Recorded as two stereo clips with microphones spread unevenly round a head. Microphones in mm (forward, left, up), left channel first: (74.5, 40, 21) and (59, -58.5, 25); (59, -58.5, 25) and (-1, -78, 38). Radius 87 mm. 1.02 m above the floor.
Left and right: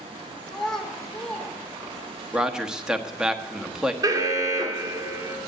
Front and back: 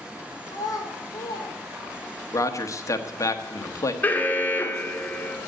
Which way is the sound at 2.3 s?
15° right.